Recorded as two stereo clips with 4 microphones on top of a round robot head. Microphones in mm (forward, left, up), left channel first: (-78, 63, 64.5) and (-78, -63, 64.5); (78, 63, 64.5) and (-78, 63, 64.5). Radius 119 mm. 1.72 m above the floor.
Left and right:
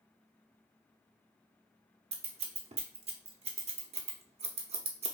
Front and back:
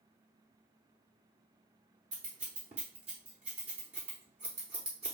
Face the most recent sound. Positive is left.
turn(degrees=-120)